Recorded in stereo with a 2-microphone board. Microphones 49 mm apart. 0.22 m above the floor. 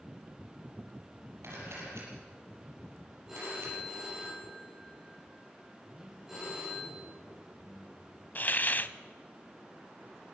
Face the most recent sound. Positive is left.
turn(degrees=40)  # may be behind; listen again after turning